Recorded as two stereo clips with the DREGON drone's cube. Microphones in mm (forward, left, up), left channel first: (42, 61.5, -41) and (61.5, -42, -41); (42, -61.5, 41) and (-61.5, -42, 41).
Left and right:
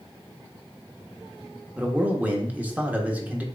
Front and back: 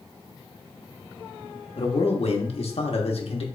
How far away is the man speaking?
About 1.1 m.